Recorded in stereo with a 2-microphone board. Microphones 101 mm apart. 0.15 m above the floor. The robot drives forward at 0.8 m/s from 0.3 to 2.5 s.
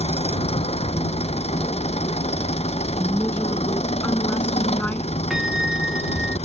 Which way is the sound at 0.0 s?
70° left (ahead or behind).